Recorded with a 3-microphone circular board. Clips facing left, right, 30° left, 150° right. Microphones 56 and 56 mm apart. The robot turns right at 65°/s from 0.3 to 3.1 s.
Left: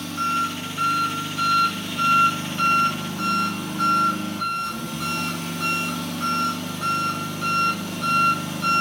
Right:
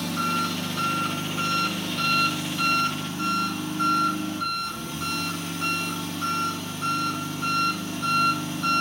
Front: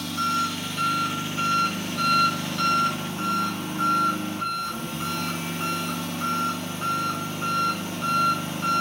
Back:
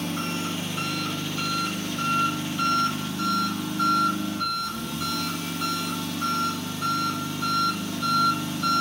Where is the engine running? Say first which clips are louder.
Left 2 dB, front 4 dB; 105° right, 4.5 m; by 8.8 s 80° left, 4.5 m.